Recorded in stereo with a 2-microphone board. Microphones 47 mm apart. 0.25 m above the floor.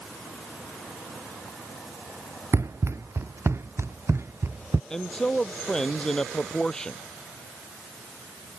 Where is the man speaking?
15° left (ahead or behind).